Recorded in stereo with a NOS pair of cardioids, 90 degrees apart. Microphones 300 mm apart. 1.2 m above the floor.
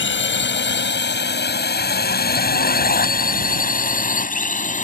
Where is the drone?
40° left; by 4.8 s 25° left.